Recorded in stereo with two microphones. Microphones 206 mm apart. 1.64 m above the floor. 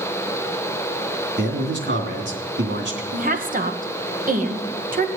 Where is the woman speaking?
45° right (ahead or behind), 1.7 m.